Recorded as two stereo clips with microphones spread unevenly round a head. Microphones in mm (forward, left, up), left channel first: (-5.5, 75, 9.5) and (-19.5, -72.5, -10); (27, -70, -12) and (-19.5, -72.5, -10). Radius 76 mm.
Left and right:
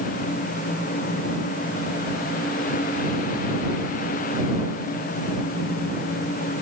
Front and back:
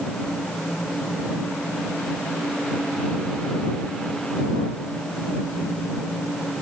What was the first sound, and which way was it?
Only background noise.